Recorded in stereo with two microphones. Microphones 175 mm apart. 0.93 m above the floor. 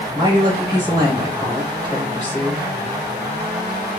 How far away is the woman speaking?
About 1.8 m.